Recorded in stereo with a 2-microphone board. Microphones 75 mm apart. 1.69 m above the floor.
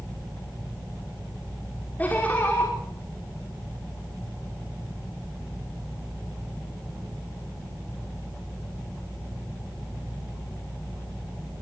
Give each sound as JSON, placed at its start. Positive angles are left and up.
{"t": 2.0, "sound": "laughter", "side_deg": 20, "distance_m": 6.0}